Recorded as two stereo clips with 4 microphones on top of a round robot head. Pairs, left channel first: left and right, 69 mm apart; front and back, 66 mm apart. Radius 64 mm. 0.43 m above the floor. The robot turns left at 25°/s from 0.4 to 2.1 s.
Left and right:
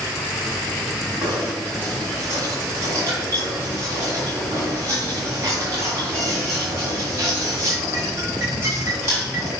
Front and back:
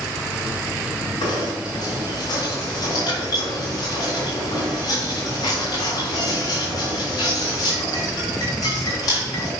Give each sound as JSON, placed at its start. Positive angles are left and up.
{"t": 1.2, "sound": "knocking", "azimuth_deg": -15, "distance_m": 3.5}